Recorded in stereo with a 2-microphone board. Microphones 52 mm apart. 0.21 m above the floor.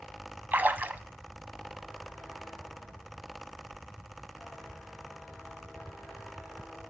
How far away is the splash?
About 0.5 m.